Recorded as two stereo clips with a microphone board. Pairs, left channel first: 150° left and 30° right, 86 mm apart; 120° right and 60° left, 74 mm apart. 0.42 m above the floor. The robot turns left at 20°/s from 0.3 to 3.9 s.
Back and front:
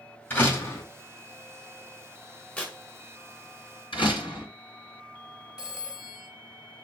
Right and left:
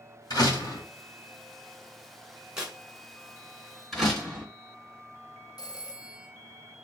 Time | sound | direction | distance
0.3 | a door slam | 145° right | 1.9 m
2.6 | tearing paper | 120° left | 1.4 m
3.9 | a door slam | 150° left | 3 m
5.6 | a phone ringing | 110° right | 1.3 m